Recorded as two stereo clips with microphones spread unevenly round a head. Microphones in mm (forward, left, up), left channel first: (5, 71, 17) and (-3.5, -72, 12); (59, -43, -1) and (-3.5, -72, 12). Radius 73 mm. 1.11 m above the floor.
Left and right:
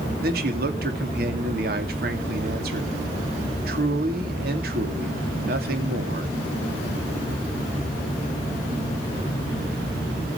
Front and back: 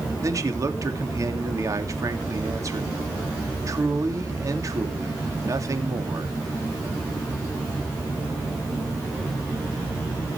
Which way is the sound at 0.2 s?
115° right.